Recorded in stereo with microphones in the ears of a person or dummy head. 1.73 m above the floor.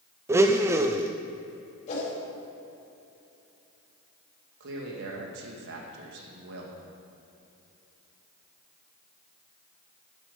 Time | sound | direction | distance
0.3 | a blender | 15° right (ahead or behind) | 0.6 m
1.9 | a whoosh | 40° left (ahead or behind) | 5 m
4.6 | a man speaking | 65° right (ahead or behind) | 2.5 m